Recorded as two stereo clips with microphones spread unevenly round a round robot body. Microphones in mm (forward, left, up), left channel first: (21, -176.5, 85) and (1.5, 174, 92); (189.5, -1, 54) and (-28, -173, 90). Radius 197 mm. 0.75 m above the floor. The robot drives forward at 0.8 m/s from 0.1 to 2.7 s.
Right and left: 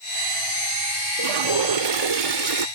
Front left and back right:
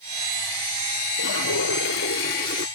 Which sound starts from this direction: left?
A toilet flushing, at 1.2 s.